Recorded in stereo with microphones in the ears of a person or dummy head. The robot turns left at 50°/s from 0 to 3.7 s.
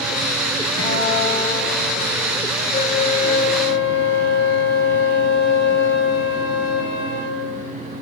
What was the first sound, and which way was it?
A guitar, 90° left.